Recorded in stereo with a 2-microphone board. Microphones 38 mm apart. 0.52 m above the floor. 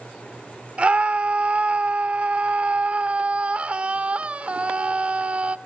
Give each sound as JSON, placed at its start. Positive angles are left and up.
{"t": 0.8, "sound": "a scream", "side_deg": -30, "distance_m": 1.6}